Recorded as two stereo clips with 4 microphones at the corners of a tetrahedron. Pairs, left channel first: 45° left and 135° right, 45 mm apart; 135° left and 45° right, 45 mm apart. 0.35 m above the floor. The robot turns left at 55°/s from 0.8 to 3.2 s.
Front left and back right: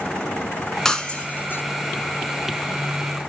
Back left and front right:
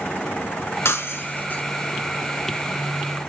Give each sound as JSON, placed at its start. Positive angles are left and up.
{"t": 0.8, "sound": "breaking glass", "azimuth_deg": 125, "distance_m": 1.7}